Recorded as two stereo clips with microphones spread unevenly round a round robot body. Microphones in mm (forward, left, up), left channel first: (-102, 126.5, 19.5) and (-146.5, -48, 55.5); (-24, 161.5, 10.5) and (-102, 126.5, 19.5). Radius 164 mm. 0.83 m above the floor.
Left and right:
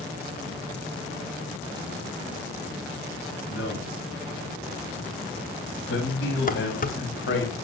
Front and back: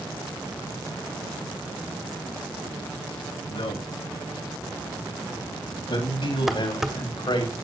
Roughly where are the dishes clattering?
Behind left.